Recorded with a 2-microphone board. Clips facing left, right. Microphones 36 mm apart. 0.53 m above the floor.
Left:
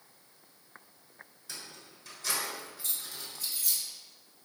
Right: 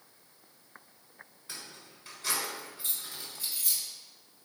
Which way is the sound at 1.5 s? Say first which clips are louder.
Even; 30° right (ahead or behind).